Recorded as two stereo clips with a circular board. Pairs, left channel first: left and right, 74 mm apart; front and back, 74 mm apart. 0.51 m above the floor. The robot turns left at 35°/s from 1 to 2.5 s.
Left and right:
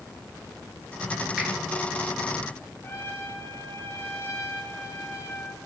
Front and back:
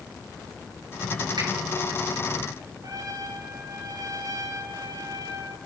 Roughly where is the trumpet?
Behind left.